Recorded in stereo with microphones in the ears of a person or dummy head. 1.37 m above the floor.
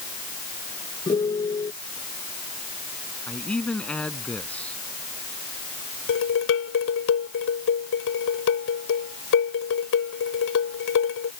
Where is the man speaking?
5° left (ahead or behind).